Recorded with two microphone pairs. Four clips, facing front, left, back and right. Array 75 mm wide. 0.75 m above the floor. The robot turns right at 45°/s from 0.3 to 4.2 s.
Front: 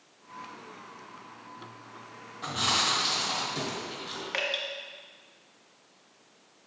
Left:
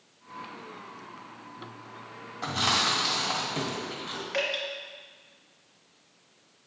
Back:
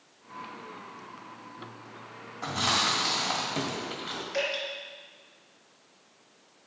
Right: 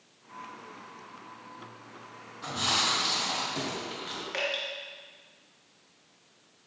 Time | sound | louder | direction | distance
2.4 | chewing | left 3 dB, back 1 dB | 120° left | 1.8 m
4.3 | dripping | left 3 dB, back 2 dB | 5° left | 1.6 m